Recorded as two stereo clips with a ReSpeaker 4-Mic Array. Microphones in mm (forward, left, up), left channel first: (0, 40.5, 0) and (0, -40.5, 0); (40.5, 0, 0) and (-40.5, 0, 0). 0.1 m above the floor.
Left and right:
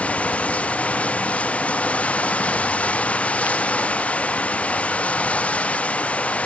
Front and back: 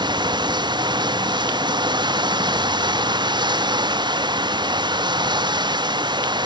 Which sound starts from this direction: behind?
Running water, at 0.0 s.